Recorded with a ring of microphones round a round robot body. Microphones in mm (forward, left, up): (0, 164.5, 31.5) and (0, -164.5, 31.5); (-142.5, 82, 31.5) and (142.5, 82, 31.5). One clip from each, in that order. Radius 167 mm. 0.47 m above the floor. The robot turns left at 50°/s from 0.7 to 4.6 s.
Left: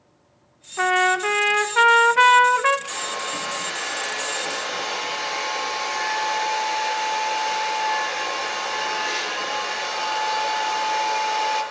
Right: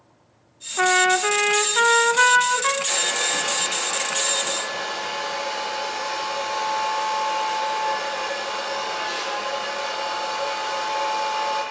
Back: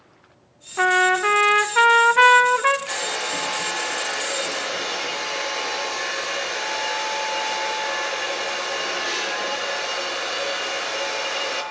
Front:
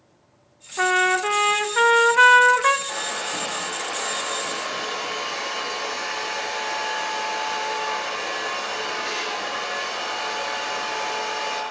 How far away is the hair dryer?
About 6 m.